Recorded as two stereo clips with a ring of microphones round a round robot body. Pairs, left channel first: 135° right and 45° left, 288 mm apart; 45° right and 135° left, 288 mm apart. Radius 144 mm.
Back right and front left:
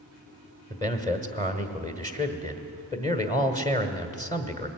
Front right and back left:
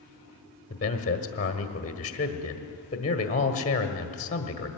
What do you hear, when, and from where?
0.7 s a man speaking: 75° right, 1.4 m